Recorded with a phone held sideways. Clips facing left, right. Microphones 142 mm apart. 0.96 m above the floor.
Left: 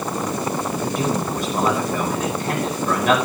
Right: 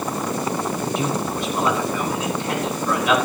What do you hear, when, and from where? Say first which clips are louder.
0.8 s a man speaking: left 1 dB; 45° left (ahead or behind), 8.5 m